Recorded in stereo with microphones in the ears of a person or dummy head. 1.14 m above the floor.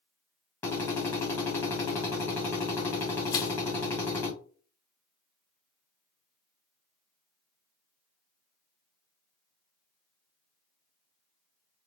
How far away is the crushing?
About 0.9 m.